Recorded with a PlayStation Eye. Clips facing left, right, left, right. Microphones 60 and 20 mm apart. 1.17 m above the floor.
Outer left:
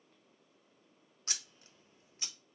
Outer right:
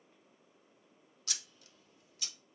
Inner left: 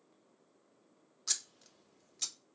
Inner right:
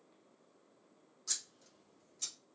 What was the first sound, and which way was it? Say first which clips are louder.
Scissors: outer left 1 dB, inner left 4 dB; 35° left (ahead or behind).